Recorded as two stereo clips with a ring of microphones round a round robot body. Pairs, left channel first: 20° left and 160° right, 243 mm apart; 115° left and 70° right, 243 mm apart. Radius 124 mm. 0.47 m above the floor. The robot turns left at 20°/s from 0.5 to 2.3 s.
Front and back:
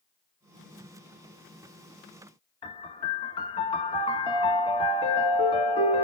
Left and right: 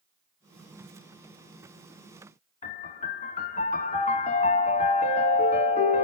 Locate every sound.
2.6 s a piano: 75° left, 1.2 m